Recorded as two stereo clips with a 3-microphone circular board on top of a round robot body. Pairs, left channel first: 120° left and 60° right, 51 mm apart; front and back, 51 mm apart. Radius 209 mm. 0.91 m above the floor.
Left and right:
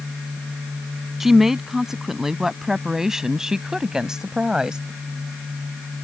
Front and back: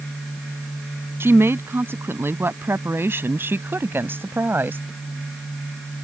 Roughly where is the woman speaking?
Behind right.